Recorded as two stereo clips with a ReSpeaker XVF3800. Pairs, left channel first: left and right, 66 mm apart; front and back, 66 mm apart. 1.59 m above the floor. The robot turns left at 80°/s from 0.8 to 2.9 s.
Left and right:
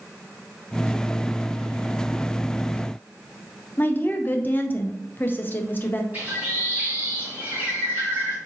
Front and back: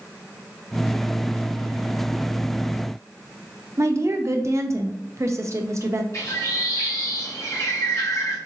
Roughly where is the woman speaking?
Behind left.